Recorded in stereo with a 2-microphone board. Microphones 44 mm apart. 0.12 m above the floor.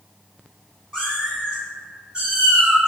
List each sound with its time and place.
0.9 s a cat meowing: 10° right (ahead or behind), 1.7 m; by 2.9 s 30° right (ahead or behind), 3 m